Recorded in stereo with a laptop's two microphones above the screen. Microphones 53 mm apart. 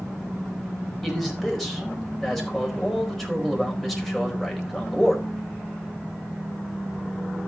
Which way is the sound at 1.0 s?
5° left (ahead or behind).